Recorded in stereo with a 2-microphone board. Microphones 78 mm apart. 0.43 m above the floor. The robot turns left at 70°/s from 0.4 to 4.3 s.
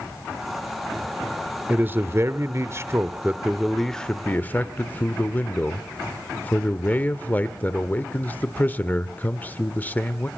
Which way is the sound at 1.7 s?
35° right.